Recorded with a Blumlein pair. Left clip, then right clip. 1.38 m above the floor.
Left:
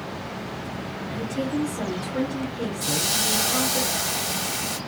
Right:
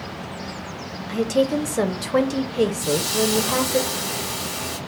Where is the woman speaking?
40° right, 0.7 m.